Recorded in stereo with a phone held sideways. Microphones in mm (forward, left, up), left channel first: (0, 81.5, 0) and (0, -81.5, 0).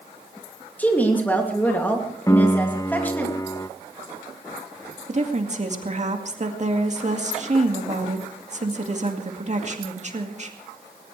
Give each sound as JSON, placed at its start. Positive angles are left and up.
{"t": 0.8, "sound": "a woman speaking", "side_deg": 10, "distance_m": 2.5}
{"t": 2.3, "sound": "a piano", "side_deg": 20, "distance_m": 0.5}
{"t": 5.1, "sound": "a woman speaking", "side_deg": -45, "distance_m": 2.0}